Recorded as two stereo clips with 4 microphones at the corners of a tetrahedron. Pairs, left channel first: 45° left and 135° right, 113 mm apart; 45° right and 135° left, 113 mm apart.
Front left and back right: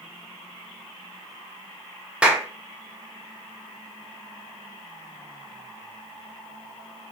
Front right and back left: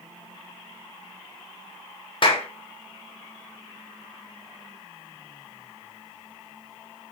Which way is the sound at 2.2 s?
60° right.